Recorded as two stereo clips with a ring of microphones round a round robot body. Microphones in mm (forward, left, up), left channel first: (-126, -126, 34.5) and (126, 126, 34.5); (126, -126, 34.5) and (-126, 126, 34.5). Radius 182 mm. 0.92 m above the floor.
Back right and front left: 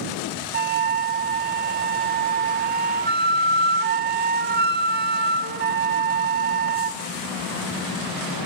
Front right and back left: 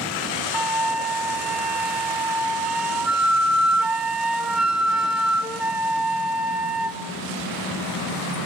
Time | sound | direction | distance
0.5 | a flute | 50° left | 0.8 m